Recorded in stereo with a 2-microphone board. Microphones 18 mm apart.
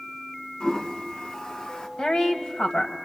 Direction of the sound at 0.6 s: 55° left (ahead or behind).